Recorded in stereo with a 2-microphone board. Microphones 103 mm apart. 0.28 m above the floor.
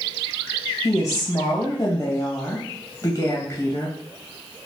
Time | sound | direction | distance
0.8 | a woman speaking | 35° left (ahead or behind) | 1.7 m